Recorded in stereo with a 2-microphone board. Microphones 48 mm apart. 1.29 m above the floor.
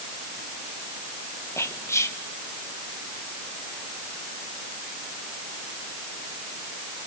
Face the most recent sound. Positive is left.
turn(degrees=80)